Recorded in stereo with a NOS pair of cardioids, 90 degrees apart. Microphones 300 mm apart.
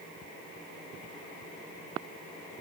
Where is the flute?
I don't hear a flute.